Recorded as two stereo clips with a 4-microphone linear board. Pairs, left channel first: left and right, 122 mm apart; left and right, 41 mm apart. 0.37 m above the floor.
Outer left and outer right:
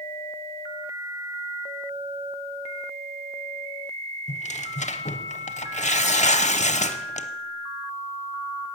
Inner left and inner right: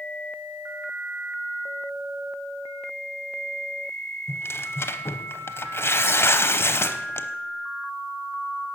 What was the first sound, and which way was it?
Tearing paper, 75° left (ahead or behind).